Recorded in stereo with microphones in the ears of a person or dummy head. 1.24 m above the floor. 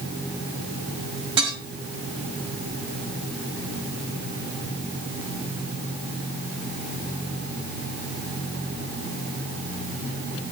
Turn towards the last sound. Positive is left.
turn(degrees=-25)  # may be behind; listen again after turning